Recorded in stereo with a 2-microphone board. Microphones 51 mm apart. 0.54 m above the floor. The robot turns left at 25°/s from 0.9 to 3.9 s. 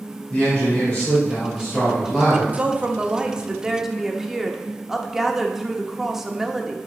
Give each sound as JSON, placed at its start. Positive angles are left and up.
{"t": 0.3, "sound": "a man speaking", "azimuth_deg": 35, "distance_m": 2.5}
{"t": 2.5, "sound": "a woman speaking", "azimuth_deg": -135, "distance_m": 0.8}